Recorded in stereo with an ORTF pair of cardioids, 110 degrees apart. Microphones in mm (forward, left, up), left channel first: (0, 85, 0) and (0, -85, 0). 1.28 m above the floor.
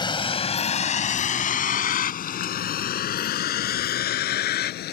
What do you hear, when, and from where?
0.0 s a vehicle: 30° left; by 4.9 s 70° left